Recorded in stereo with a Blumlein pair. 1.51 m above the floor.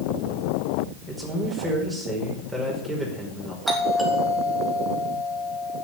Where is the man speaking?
5° right, 5 m.